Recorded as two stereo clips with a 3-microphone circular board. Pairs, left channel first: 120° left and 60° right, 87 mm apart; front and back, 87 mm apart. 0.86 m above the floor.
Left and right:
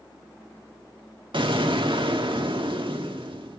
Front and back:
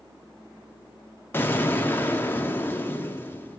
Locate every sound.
1.3 s an explosion: 65° right, 1.4 m